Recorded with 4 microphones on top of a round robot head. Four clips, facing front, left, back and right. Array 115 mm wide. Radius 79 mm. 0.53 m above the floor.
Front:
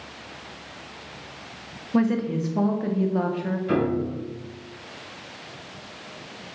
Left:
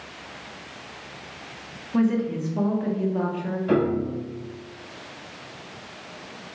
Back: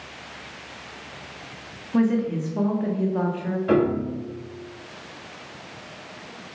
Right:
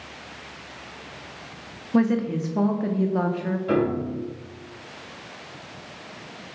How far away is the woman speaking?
About 0.6 m.